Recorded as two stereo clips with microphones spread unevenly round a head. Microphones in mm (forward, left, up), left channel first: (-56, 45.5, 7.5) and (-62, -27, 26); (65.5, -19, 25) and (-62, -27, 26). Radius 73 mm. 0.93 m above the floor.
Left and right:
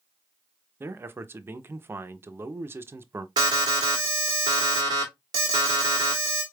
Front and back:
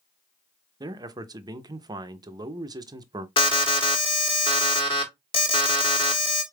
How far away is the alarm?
About 1.4 m.